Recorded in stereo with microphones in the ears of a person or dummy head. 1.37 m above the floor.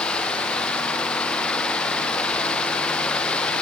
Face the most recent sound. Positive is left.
No sound to turn to.